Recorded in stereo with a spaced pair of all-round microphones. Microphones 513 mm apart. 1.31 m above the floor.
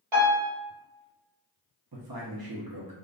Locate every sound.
0.1 s a piano: 60° right (ahead or behind), 1.2 m
1.9 s a man speaking: 45° right (ahead or behind), 0.7 m